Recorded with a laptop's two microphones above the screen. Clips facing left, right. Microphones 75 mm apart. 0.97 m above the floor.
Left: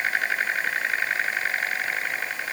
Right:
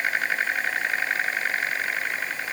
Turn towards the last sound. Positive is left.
No sound to turn to.